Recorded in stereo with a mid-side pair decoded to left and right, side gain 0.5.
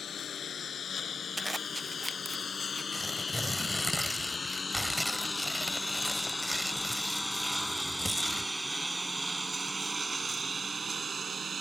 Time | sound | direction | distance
0.0 | a lawn mower | 45° left | ?
1.4 | a zipper | 10° right | ?
2.9 | tearing paper | straight ahead | ?